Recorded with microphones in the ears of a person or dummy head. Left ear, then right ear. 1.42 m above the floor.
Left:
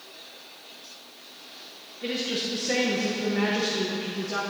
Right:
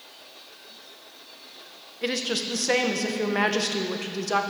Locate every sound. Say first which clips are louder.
2.0 s a woman speaking: right 2 dB; 45° right (ahead or behind), 0.7 m